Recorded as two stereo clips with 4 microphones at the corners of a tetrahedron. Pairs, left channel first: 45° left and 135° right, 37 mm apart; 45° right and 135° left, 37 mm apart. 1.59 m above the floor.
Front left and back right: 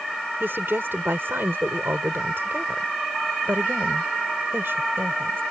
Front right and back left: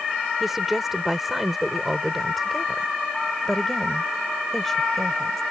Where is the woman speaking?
145° right; by 5.4 s 125° right.